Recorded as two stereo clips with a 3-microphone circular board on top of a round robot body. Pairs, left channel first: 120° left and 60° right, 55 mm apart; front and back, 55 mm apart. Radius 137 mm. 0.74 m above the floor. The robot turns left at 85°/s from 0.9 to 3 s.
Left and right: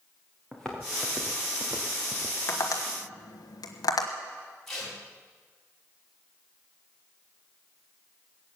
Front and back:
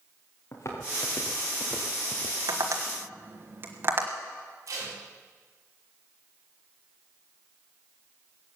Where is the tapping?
170° left, 1.1 m; by 4.1 s 130° left, 1.1 m.